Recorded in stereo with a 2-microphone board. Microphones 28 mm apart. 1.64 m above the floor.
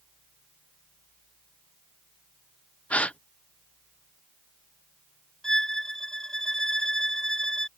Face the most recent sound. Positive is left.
turn(degrees=15)  # may be behind; listen again after turning